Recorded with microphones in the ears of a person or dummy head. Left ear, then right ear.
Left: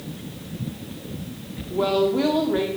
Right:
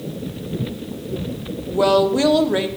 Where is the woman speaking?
75° right (ahead or behind), 1.2 m.